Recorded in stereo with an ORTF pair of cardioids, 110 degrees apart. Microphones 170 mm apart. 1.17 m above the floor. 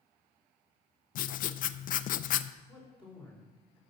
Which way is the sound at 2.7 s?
5° right.